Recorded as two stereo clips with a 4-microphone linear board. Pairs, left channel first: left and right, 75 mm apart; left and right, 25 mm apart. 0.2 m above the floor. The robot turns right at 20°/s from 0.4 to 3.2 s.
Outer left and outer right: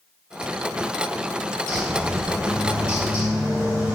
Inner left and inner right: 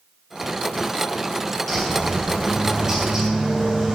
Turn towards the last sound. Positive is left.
turn(degrees=-155)